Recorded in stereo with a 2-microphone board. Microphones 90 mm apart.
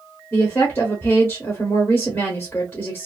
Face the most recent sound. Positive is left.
turn(degrees=20)  # may be behind; listen again after turning